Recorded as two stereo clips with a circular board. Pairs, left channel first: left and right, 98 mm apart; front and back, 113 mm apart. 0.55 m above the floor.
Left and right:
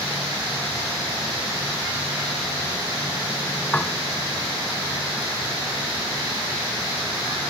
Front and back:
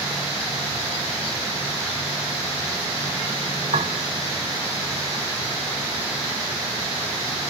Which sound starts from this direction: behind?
A piano, at 3.7 s.